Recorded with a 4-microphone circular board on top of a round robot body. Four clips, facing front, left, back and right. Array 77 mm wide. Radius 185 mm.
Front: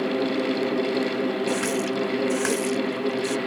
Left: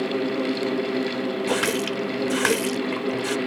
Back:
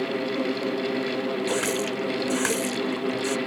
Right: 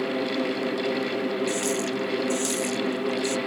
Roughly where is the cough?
I don't hear a cough.